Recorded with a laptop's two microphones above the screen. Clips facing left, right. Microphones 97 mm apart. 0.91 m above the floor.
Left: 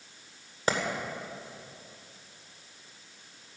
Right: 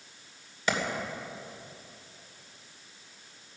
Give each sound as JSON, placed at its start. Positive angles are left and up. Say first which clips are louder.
{"t": 0.7, "sound": "a clap", "louder": "left 1 dB", "side_deg": 40, "distance_m": 2.5}